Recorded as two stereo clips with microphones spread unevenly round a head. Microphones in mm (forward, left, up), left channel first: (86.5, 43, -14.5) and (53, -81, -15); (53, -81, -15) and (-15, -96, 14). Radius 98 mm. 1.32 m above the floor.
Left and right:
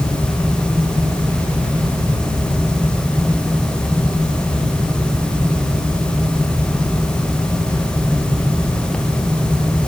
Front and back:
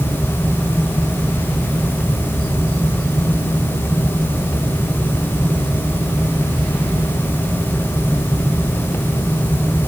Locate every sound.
Only background noise.